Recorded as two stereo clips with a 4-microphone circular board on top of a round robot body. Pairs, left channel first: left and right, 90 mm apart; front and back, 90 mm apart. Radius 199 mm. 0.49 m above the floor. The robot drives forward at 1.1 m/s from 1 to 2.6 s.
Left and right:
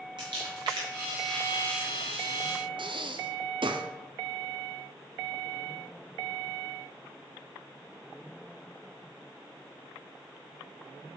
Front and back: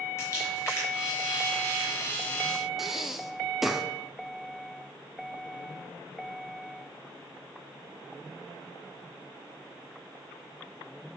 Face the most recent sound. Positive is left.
turn(degrees=-90)